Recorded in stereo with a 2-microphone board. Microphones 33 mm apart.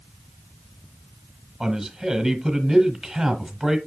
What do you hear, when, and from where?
1.6 s a man speaking: 5° right (ahead or behind), 1.5 m